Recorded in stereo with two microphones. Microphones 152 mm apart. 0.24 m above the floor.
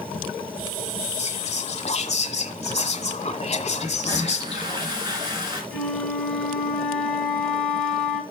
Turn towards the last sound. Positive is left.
turn(degrees=5)  # may be behind; listen again after turning